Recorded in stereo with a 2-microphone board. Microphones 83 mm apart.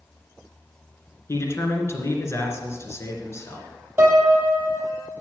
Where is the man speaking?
35° left (ahead or behind), 2 m.